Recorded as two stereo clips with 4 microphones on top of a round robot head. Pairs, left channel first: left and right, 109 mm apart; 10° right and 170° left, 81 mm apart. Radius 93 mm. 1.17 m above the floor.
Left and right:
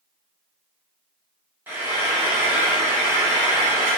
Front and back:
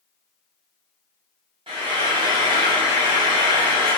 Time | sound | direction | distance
1.7 | frying | 160° right | 0.7 m